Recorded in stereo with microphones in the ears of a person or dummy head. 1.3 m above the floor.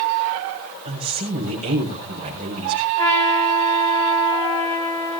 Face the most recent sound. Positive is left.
turn(degrees=25)  # may be behind; listen again after turning